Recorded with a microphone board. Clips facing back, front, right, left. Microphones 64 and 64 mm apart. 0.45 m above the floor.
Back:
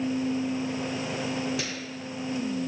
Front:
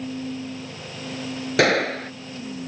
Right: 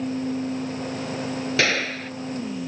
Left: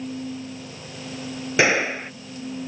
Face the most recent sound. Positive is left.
turn(degrees=20)